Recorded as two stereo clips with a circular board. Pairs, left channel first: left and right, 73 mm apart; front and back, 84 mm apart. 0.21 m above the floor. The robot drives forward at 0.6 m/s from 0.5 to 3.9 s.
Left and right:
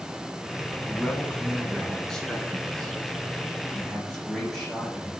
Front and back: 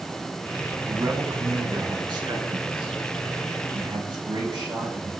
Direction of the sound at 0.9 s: 160° left.